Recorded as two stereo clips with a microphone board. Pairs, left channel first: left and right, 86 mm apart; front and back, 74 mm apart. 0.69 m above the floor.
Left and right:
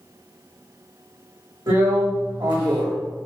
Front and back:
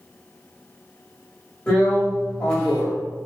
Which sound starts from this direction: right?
A drill, at 1.7 s.